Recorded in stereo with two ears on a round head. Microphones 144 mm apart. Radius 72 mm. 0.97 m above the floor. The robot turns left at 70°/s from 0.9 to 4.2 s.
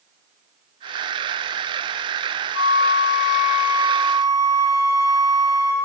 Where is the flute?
65° left, 3 m; by 5.8 s 50° right, 3 m.